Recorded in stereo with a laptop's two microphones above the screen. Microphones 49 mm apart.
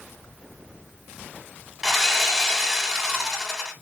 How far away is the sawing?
About 1.6 m.